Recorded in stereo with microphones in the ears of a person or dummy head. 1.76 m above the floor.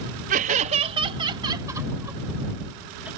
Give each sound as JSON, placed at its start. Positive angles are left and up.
{"t": 0.3, "sound": "laughter", "side_deg": -50}